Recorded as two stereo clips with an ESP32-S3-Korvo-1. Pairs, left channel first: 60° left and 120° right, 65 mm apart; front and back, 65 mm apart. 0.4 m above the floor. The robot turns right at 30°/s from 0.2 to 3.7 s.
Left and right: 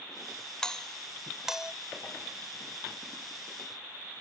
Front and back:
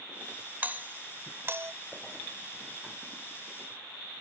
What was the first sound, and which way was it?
A doorbell, 130° left.